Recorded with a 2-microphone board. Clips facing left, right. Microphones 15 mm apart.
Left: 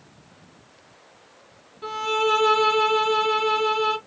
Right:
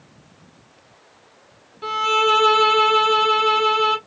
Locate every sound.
1.8 s a violin: 15° right (ahead or behind), 1.3 m